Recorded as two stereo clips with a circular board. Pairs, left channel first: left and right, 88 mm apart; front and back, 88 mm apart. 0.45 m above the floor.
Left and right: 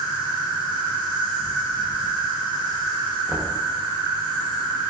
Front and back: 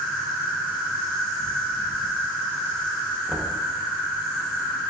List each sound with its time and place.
0.0 s an insect: 85° right, 1.8 m
3.3 s knocking: 105° right, 0.6 m